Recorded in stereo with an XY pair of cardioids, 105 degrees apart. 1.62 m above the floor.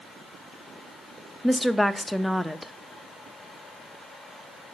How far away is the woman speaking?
About 0.6 m.